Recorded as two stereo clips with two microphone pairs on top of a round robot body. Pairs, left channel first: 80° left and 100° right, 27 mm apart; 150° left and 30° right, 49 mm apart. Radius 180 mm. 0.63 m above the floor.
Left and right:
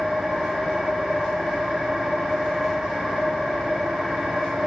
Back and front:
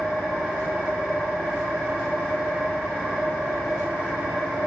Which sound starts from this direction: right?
An engine running, at 0.0 s.